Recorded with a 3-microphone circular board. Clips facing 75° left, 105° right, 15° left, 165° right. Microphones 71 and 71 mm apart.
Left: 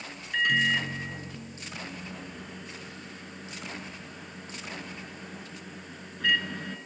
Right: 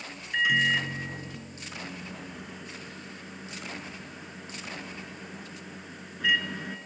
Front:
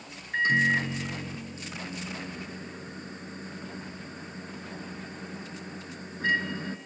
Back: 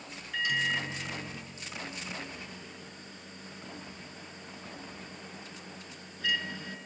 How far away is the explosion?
I don't hear an explosion.